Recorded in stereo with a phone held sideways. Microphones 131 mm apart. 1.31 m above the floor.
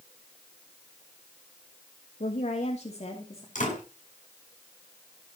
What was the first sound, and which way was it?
A woman speaking, 80° left.